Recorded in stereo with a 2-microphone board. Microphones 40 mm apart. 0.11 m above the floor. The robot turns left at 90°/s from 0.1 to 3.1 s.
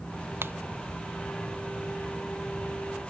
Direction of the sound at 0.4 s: 65° right (ahead or behind).